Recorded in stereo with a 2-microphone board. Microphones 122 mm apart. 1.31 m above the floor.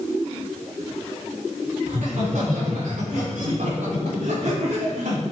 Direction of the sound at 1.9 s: 85° right.